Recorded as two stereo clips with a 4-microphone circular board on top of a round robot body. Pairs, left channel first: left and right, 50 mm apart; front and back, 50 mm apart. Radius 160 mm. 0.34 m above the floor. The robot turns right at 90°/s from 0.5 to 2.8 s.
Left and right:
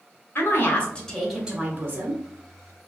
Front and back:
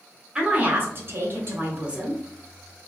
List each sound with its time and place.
0.3 s a woman speaking: 110° left, 1.6 m; by 2.2 s 95° right, 1.6 m